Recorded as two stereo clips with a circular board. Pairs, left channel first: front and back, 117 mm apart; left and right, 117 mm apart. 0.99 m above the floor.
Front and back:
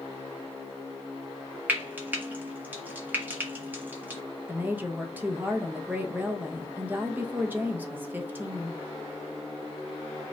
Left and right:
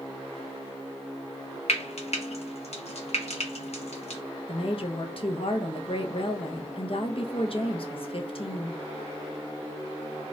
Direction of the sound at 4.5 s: 110° left.